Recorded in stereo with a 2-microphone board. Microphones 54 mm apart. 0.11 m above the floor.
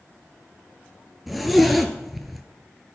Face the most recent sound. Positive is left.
turn(degrees=0)  # may be behind; listen again after turning